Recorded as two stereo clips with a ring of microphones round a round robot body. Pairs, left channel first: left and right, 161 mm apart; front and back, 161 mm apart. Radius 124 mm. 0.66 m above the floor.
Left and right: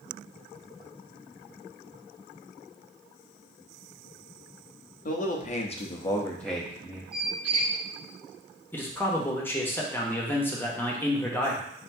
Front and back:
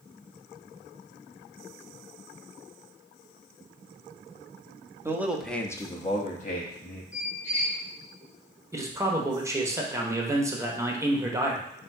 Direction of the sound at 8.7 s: 145° left.